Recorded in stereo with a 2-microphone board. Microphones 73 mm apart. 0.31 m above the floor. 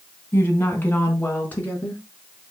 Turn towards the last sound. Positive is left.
turn(degrees=20)  # may be behind; listen again after turning